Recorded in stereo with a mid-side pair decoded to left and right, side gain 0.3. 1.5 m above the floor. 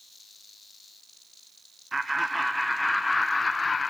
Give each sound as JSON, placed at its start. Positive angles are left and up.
{"t": 1.9, "sound": "laughter", "azimuth_deg": -35, "distance_m": 0.8}